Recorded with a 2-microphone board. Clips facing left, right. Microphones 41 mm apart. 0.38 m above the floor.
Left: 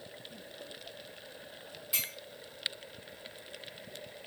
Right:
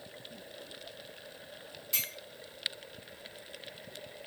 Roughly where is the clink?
Centre.